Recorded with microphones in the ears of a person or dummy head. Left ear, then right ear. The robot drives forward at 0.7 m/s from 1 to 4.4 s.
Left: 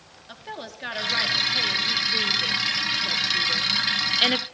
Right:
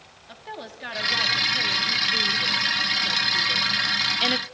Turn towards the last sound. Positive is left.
turn(degrees=5)  # may be behind; listen again after turning